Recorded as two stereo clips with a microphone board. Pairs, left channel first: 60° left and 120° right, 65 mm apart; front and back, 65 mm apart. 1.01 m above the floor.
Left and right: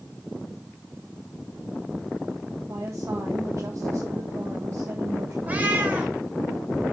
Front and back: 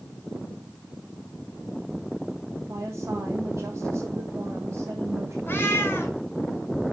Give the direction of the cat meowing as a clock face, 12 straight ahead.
2 o'clock.